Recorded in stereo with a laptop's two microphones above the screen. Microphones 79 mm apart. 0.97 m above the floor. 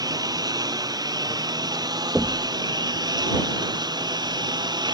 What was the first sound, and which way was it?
A lawn mower, 55° right (ahead or behind).